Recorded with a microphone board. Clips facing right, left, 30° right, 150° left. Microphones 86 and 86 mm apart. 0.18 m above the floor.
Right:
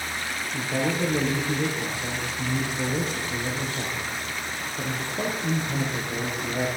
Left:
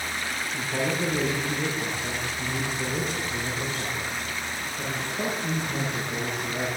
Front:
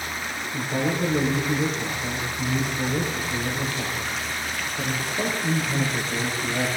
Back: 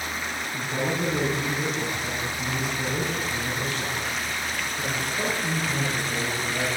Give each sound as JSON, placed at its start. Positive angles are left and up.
{"t": 0.5, "sound": "a man speaking", "azimuth_deg": -100, "distance_m": 6.0}